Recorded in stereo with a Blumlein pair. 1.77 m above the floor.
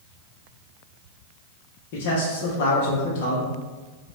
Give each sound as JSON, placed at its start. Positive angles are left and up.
{"t": 1.9, "sound": "a man speaking", "azimuth_deg": 45, "distance_m": 0.9}